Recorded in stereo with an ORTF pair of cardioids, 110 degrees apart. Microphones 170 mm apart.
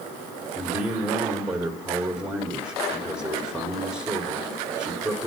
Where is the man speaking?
5° right, 3.5 m.